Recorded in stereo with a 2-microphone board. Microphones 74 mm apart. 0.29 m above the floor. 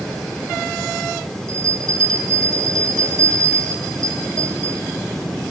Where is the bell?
50° right (ahead or behind), 1.4 m.